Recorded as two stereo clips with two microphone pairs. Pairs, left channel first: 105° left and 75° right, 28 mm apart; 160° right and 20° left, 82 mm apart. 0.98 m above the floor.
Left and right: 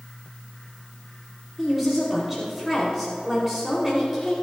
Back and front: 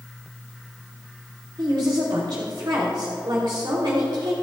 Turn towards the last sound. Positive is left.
turn(degrees=10)